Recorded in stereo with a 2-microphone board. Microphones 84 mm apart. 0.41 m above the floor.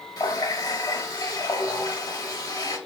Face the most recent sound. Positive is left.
turn(degrees=45)  # may be behind; listen again after turning